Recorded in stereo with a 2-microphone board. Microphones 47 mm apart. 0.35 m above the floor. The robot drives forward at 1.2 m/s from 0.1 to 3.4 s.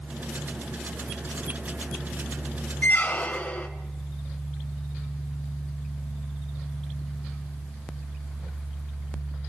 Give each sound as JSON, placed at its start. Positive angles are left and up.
{"t": 2.8, "sound": "a squeak", "side_deg": 40, "distance_m": 0.9}